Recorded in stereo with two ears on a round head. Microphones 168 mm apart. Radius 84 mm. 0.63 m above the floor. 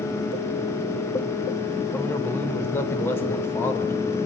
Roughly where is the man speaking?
Centre.